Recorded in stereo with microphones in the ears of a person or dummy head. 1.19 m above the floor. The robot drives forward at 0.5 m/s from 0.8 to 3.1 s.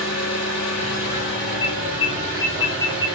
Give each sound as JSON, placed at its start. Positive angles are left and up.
{"t": 0.0, "sound": "an engine running", "side_deg": 80, "distance_m": 0.8}
{"t": 1.6, "sound": "an alarm", "side_deg": 20, "distance_m": 1.0}